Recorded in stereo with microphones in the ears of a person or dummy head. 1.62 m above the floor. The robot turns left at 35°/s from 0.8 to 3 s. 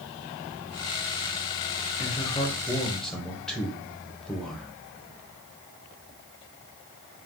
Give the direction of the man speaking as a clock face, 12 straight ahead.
11 o'clock.